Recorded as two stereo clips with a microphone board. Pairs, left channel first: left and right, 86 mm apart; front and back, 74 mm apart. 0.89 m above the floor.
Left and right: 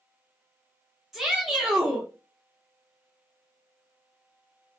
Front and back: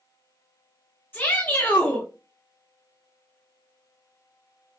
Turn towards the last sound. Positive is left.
turn(degrees=-10)